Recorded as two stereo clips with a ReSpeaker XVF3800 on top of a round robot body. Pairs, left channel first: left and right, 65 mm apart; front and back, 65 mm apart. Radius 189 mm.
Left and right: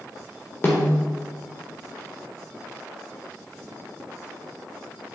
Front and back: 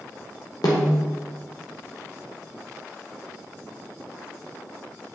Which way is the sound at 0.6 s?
30° left.